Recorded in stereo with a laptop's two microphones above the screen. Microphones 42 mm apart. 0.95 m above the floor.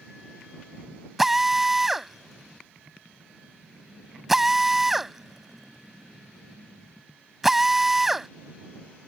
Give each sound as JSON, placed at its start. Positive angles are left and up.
{"t": 1.2, "sound": "a drill", "side_deg": -5}